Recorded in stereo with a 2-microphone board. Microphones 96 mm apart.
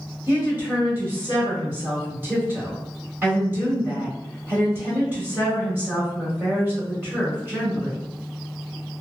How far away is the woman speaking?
About 1.4 m.